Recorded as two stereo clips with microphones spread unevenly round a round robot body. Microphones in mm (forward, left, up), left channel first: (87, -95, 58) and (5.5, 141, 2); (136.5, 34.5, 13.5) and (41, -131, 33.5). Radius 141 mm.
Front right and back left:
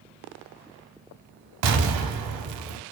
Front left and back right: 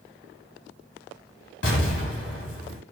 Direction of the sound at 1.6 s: 110° left.